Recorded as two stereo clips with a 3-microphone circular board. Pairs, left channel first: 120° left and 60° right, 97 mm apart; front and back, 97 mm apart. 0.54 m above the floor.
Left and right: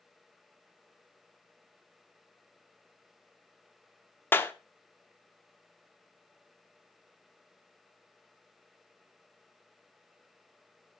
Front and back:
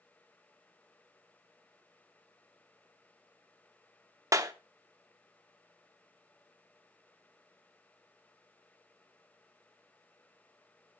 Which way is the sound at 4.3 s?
170° left.